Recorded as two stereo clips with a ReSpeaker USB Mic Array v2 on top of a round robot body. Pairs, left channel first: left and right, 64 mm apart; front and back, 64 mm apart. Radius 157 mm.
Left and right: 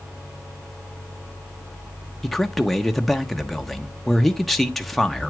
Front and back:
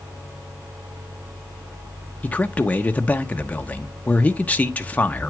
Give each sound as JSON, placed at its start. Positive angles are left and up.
{"t": 2.2, "sound": "a man speaking", "azimuth_deg": 5, "distance_m": 0.8}